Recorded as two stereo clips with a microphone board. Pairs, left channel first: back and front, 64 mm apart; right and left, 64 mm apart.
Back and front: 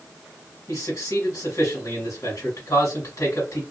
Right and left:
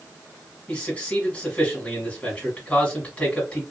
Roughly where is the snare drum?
No snare drum in this recording.